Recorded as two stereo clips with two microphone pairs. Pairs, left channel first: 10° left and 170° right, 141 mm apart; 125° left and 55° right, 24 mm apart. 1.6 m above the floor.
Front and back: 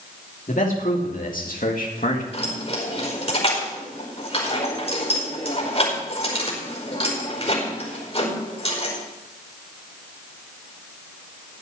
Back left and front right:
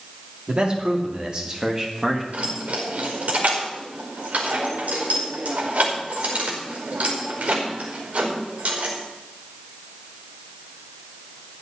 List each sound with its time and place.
0.5 s a man speaking: 15° right, 3 m; by 2.2 s 20° left, 1.6 m
2.3 s keys jangling: 40° right, 5 m